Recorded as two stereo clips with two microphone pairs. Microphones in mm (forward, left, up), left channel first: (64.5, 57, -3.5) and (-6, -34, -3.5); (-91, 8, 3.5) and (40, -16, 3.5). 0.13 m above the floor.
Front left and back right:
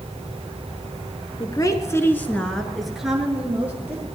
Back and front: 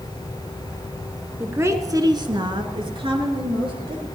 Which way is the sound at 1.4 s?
55° left.